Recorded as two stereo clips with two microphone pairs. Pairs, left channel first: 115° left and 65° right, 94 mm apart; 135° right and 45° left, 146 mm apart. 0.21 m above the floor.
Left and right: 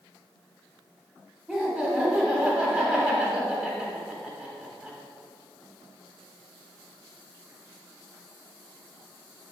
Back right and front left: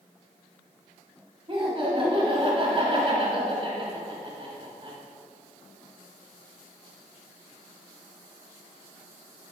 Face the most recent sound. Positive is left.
turn(degrees=35)